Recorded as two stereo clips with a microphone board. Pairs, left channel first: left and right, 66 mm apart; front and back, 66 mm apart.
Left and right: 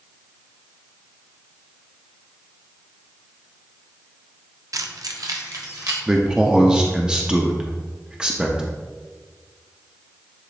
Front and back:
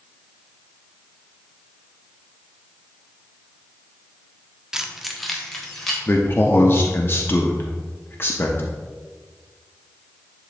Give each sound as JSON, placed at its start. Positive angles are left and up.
{"t": 4.7, "sound": "keys jangling", "azimuth_deg": -100, "distance_m": 0.5}
{"t": 6.1, "sound": "a man speaking", "azimuth_deg": -20, "distance_m": 0.6}